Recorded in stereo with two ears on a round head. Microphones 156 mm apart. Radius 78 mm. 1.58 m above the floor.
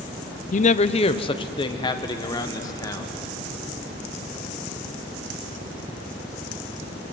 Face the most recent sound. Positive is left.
turn(degrees=20)  # may be behind; listen again after turning